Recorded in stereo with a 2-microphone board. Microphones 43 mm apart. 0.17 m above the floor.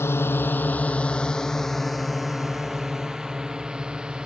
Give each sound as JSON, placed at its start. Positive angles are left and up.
{"t": 0.0, "sound": "a drone", "side_deg": 70}